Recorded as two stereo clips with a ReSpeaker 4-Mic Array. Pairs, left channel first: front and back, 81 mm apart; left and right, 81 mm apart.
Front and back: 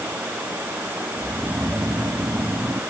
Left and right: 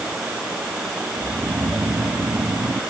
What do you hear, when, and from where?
1.2 s snoring: 135° right